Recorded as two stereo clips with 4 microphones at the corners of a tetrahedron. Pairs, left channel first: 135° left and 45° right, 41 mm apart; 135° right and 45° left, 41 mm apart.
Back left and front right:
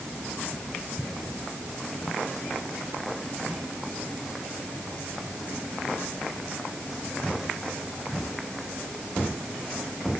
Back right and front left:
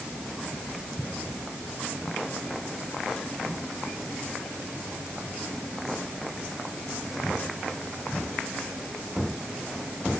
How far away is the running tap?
No running tap in this recording.